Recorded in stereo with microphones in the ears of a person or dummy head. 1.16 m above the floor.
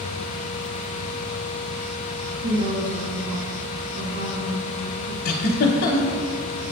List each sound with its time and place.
2.4 s a woman speaking: 65° right (ahead or behind), 1.0 m
5.2 s a giggle: 50° left (ahead or behind), 0.8 m